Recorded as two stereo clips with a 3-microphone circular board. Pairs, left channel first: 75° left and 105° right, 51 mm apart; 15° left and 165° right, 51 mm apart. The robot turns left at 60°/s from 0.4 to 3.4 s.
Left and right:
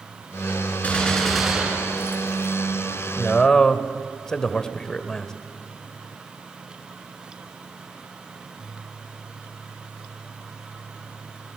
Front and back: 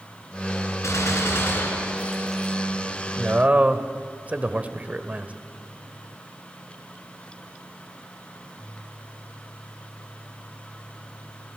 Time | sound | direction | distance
0.8 | a gunshot | 15° left | 4 m
3.2 | a man speaking | 160° left | 1.2 m